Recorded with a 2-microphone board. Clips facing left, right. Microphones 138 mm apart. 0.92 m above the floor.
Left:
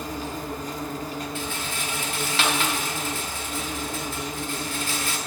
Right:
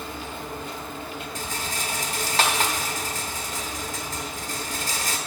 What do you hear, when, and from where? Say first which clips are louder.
0.0 s an insect: left 3 dB; 40° left (ahead or behind), 0.7 m
1.4 s a rattle: left 1 dB; 40° right (ahead or behind), 0.8 m